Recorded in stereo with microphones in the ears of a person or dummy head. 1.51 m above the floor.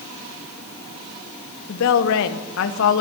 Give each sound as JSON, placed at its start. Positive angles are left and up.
{"t": 1.7, "sound": "a woman speaking", "side_deg": 75, "distance_m": 1.2}